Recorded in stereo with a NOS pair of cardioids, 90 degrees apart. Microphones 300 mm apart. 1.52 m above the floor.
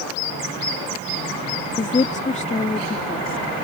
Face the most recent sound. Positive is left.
turn(degrees=20)